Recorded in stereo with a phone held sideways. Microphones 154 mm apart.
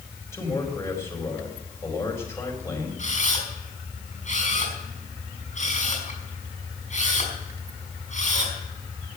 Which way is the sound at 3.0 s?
50° left (ahead or behind).